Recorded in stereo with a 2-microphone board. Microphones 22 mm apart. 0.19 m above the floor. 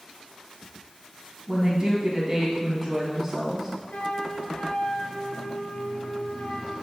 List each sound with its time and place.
1.5 s a woman speaking: 10° right (ahead or behind), 1.4 m
3.9 s a flute: 65° left (ahead or behind), 1.8 m